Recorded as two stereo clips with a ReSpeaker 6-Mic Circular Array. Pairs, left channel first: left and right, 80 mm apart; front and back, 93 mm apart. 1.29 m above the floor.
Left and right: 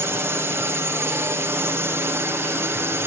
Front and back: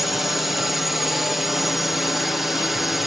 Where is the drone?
95° right.